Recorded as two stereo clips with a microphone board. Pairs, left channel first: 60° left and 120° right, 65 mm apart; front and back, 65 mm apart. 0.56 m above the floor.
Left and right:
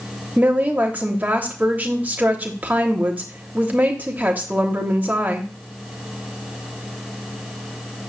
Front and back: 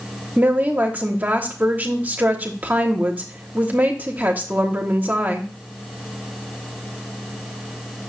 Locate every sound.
0.4 s a woman speaking: 150° right, 0.9 m